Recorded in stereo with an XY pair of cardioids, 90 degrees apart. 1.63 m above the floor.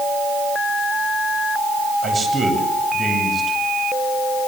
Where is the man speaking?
35° right, 9.5 m.